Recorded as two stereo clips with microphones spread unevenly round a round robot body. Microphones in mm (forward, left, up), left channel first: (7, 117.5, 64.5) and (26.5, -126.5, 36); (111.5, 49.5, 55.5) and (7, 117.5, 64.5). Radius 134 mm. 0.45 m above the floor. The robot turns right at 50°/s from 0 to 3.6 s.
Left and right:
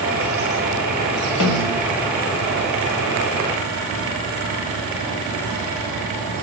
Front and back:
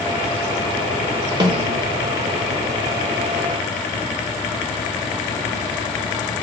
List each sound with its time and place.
1.4 s a snare drum: 95° left, 1.0 m; by 1.8 s 115° left, 1.0 m